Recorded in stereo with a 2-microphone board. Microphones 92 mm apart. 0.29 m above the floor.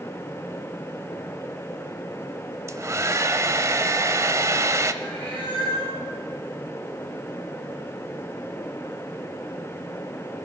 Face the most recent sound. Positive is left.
turn(degrees=20)  # may be behind; listen again after turning